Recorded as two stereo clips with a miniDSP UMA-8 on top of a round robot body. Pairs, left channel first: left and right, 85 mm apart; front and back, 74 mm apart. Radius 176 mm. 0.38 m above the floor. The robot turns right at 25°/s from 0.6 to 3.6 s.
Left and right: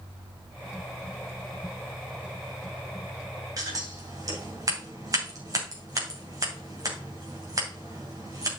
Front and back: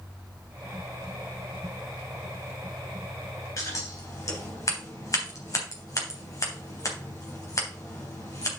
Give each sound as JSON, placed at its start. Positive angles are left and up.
{"t": 3.6, "sound": "scissors", "azimuth_deg": -45, "distance_m": 3.0}